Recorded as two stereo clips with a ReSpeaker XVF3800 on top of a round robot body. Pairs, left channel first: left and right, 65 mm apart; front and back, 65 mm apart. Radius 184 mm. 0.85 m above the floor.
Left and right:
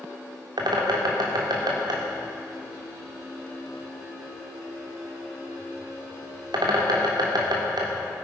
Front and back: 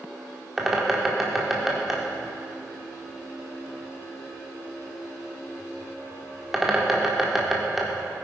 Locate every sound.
0.6 s a bird: 95° right, 1.8 m